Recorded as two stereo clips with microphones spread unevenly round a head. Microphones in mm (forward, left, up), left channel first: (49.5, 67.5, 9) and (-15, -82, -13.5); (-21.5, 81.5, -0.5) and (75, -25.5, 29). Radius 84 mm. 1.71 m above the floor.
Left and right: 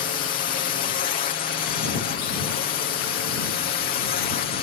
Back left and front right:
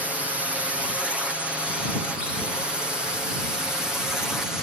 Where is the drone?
40° left; by 4.6 s 50° left.